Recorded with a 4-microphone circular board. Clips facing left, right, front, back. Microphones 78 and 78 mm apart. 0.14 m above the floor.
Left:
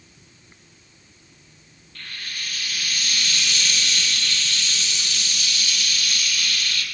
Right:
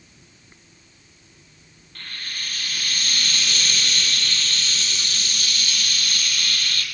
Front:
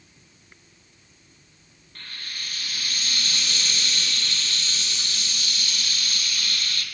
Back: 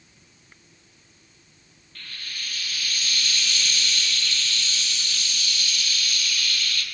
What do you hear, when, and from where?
1.9 s frying: 50° right, 4 m